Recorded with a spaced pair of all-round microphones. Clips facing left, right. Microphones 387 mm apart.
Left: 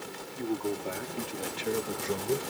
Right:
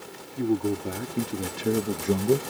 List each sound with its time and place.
0.4 s a man speaking: 45° right (ahead or behind); by 2.4 s 65° right (ahead or behind)